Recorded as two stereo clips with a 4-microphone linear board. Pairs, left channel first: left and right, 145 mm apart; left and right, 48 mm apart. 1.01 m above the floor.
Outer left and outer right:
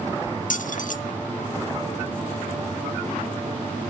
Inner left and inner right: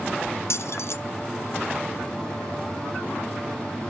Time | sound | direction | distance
0.5 | keys jangling | 65° left (ahead or behind) | 0.8 m